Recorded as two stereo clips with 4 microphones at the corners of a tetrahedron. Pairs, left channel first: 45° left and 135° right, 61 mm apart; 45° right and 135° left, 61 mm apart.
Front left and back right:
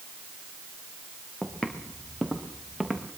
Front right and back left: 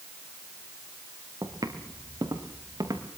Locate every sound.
1.4 s footsteps: 120° left, 4 m; by 3.0 s 140° left, 5 m